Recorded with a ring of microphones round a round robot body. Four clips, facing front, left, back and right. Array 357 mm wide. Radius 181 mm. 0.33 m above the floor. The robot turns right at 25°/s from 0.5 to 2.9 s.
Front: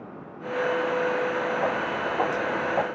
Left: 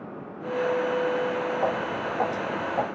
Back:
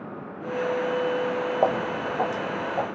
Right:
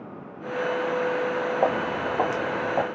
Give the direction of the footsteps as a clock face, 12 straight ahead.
5 o'clock.